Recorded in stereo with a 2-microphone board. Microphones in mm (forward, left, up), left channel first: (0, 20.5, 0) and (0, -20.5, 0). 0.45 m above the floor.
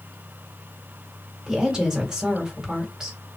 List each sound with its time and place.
1.5 s a woman speaking: 15° right (ahead or behind), 1.4 m